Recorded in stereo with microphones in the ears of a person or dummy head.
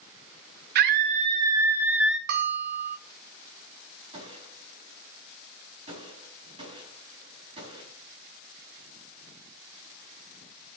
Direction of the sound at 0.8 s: 55° right (ahead or behind).